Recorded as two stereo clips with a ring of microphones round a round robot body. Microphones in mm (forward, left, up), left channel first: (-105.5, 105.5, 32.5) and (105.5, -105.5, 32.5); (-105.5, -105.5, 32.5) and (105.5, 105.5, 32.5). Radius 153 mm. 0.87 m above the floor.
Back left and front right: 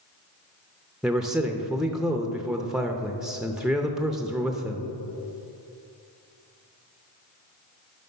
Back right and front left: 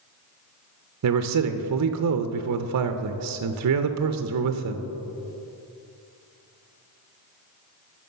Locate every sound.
1.0 s a man speaking: 40° left, 0.6 m